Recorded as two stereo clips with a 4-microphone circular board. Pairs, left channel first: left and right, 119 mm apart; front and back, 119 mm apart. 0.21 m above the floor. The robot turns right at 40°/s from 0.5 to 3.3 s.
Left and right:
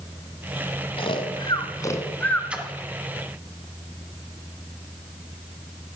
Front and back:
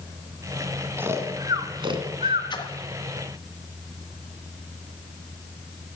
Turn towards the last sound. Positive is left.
turn(degrees=15)